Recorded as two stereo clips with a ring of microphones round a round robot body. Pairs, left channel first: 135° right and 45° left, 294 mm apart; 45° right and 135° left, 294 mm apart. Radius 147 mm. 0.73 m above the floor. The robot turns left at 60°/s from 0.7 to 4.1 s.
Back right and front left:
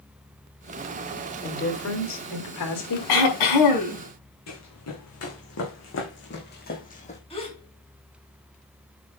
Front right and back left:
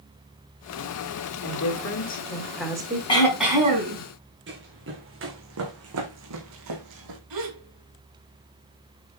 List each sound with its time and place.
1.4 s a woman speaking: 65° right, 3 m; by 3.0 s 160° right, 3 m
3.1 s throat clearing: 120° right, 5.5 m; by 4.0 s 170° right, 5.5 m
4.5 s running footsteps: 170° right, 4 m; by 7.2 s 155° left, 2.5 m
7.3 s a gasp: 155° left, 4 m